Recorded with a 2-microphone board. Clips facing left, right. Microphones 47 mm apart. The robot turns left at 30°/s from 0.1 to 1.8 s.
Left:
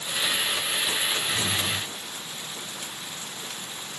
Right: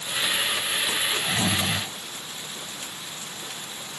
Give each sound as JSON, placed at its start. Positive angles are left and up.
{"t": 1.1, "sound": "snoring", "side_deg": -80}